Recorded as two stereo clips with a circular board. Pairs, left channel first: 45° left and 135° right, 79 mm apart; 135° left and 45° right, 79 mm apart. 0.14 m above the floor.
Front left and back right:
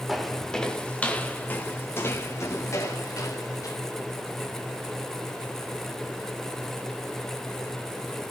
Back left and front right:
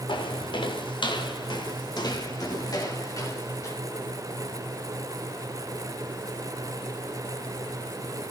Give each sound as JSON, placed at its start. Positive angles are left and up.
{"t": 0.1, "sound": "footsteps", "azimuth_deg": 135, "distance_m": 2.5}